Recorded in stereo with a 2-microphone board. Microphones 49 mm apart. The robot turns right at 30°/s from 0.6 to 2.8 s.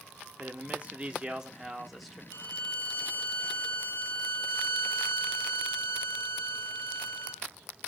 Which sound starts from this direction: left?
A violin, at 2.3 s.